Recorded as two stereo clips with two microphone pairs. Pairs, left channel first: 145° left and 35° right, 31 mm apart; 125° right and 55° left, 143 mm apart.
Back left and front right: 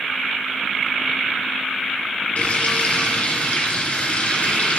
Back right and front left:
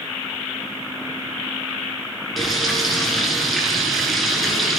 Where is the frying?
145° left, 2 m.